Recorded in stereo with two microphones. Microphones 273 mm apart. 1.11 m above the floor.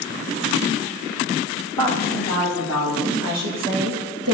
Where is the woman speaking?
80° right, 3 m; by 4.3 s 60° right (ahead or behind), 1.2 m.